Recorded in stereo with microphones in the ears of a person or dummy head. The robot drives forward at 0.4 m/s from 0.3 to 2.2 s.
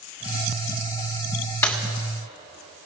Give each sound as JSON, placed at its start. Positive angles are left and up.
{"t": 1.6, "sound": "breaking glass", "side_deg": 15, "distance_m": 1.4}